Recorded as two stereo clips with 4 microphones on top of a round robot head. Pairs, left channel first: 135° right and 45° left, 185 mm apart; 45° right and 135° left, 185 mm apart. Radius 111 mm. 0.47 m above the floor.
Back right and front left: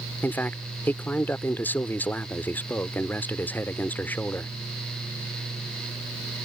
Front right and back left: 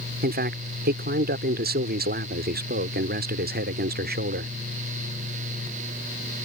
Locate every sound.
0.2 s a man speaking: 150° left